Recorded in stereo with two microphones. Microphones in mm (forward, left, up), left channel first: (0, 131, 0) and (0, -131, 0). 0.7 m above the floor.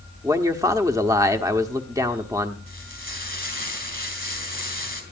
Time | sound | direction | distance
0.2 | a man speaking | 10° right (ahead or behind) | 1.3 m
2.7 | frying | 45° right (ahead or behind) | 3.5 m